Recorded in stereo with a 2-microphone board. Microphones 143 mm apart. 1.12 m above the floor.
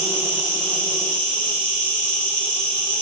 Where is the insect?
10° left (ahead or behind), 1.5 m.